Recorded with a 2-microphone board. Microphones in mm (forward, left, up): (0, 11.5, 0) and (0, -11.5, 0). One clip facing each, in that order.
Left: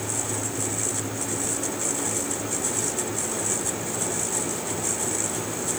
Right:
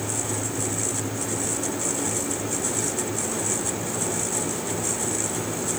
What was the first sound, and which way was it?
Only background noise.